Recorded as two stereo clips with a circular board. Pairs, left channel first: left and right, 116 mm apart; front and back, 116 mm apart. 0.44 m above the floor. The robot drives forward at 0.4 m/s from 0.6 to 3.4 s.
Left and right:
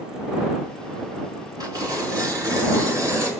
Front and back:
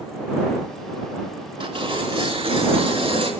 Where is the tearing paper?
145° right, 4.5 m; by 3.3 s 150° right, 5 m.